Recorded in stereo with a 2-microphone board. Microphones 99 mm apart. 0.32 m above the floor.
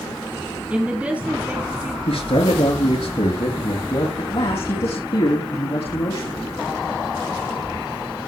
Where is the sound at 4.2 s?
70° left (ahead or behind), 3.5 m.